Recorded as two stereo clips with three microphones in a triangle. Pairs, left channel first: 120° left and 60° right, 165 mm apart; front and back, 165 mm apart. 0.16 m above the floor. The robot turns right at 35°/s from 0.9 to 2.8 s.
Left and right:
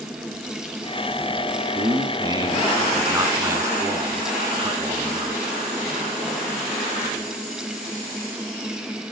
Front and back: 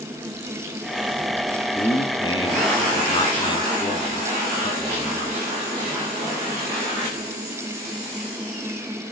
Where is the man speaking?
45° right, 1.5 m; by 5.4 s 10° right, 1.5 m.